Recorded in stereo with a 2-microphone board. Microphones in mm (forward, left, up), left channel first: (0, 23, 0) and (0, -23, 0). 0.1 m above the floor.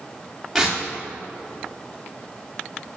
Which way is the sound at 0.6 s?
5° right (ahead or behind).